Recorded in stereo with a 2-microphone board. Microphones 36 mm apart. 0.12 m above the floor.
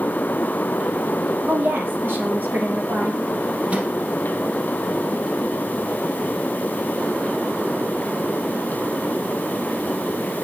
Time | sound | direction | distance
1.5 | a woman speaking | 65° right (ahead or behind) | 3.5 m
3.7 | a microwave | 35° right (ahead or behind) | 3 m